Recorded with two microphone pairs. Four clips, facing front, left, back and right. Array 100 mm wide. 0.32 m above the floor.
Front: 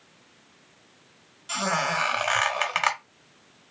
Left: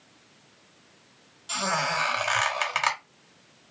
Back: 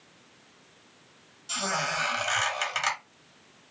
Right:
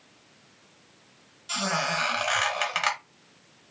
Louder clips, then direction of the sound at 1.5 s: Left 1 dB, front 4 dB; 15° left.